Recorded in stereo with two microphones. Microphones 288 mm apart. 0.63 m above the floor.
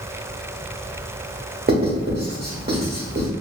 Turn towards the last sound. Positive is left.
turn(degrees=-35)  # may be behind; listen again after turning